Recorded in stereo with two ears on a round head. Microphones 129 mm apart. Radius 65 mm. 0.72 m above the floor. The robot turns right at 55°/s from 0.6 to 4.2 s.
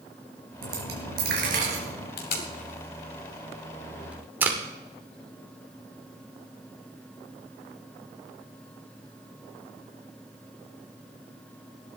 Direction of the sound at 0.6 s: 110° right.